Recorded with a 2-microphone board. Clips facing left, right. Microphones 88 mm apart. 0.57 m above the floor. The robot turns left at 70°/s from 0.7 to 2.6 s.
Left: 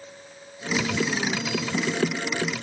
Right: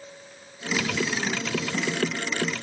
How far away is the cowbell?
I don't hear a cowbell.